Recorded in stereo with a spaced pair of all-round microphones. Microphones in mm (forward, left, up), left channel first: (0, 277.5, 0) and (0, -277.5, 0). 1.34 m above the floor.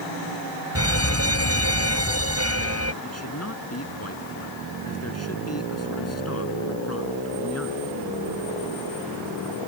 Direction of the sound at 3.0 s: 25° left (ahead or behind).